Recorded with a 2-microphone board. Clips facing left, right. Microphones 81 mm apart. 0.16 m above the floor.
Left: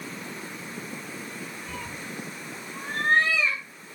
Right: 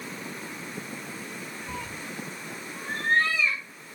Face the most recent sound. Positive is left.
turn(degrees=65)  # may be behind; listen again after turning